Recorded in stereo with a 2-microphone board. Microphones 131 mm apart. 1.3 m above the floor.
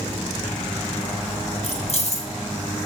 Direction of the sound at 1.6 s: 55° left (ahead or behind).